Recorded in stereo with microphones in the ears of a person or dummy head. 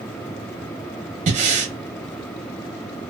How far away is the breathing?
About 1.1 m.